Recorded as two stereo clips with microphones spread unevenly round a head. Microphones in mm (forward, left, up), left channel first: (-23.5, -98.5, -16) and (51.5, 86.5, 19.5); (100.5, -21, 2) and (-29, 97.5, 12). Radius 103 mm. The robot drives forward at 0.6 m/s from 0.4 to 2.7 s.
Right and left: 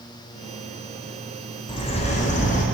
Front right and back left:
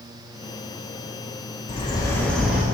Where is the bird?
75° right, 0.6 m; by 2.6 s 140° right, 0.8 m.